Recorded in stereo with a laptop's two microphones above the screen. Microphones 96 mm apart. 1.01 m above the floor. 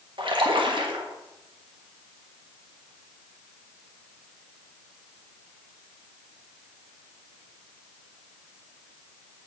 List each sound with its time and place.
0.2 s a splash: 60° right (ahead or behind), 1.3 m